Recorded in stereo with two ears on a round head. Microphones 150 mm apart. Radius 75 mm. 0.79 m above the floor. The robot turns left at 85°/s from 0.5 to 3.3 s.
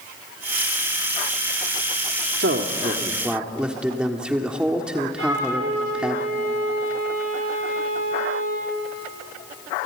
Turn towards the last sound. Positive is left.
turn(degrees=-75)  # may be behind; listen again after turning